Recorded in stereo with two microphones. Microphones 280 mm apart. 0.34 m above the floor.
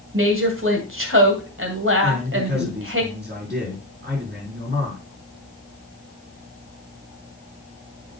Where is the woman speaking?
45° right (ahead or behind), 1.9 m.